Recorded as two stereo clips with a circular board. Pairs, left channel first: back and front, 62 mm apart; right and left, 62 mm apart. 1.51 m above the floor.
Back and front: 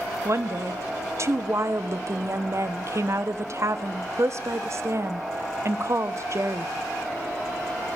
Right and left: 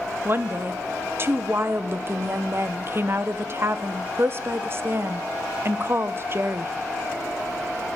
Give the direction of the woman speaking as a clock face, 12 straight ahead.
11 o'clock.